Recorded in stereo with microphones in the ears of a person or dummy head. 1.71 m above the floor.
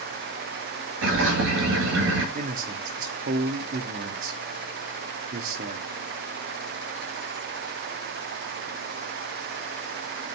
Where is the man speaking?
30° right (ahead or behind), 0.9 m.